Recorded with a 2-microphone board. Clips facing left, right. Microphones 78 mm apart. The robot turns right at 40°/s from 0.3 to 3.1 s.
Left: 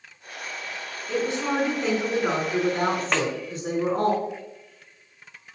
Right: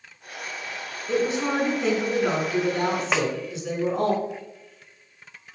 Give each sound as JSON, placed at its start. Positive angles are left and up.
{"t": 1.1, "sound": "a woman speaking", "azimuth_deg": -30, "distance_m": 3.0}
{"t": 3.1, "sound": "a snare drum", "side_deg": -5, "distance_m": 0.7}